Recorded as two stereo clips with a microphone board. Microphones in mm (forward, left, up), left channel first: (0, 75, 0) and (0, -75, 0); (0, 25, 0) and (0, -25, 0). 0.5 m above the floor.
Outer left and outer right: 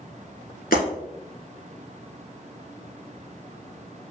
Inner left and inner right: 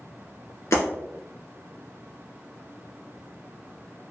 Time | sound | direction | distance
0.7 | breaking glass | 75° left (ahead or behind) | 1.9 m